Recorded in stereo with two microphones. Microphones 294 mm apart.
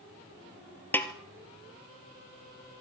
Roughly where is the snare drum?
Centre.